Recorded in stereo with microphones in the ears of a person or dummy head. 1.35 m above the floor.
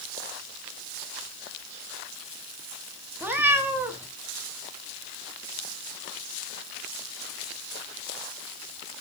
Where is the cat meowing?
5° right (ahead or behind), 1.1 m.